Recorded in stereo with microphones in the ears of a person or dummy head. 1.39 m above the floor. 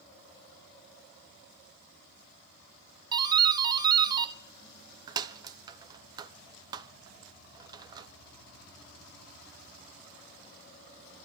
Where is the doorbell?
25° right (ahead or behind), 0.6 m.